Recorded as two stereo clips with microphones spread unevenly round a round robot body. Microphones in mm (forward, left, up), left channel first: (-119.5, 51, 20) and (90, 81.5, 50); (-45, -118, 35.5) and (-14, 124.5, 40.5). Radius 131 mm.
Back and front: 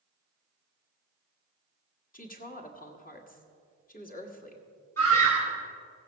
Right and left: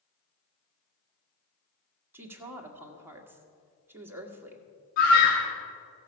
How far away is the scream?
About 1.7 m.